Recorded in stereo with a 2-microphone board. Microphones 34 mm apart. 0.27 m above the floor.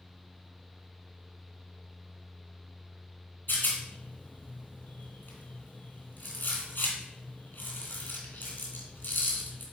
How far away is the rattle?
About 2.5 m.